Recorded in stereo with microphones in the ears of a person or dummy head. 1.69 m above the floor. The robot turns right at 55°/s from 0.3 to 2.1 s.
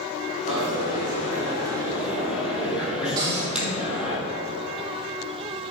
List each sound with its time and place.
0.5 s a dropped coin: 95° right, 4.5 m; by 4.2 s 5° right, 4.5 m
3.2 s a cupboard door: 20° right (ahead or behind), 3.5 m